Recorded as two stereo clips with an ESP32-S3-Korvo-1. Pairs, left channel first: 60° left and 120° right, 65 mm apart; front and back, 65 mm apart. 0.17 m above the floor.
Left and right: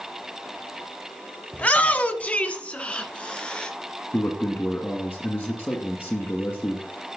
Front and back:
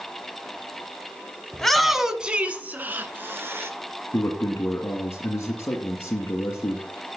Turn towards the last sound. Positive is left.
turn(degrees=25)